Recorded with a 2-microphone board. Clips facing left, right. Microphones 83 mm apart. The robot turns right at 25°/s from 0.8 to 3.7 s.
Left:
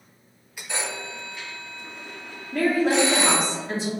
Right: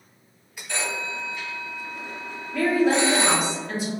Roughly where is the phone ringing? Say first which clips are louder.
Right 2 dB; centre.